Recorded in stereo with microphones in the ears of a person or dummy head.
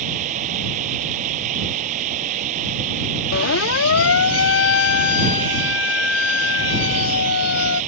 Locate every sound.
0.0 s running water: 45° right (ahead or behind)
3.3 s a siren: 70° left (ahead or behind); by 7.8 s 85° left